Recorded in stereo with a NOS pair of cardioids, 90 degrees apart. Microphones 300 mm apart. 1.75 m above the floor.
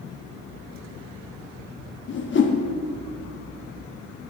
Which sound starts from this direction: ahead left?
A whoosh, at 2.1 s.